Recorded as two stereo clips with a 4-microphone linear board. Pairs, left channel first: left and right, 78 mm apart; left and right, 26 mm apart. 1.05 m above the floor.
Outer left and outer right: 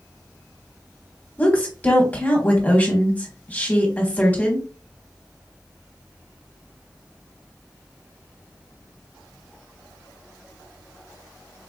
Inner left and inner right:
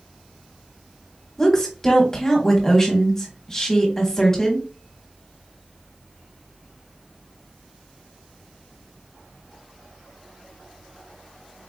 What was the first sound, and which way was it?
A woman speaking, 20° left (ahead or behind).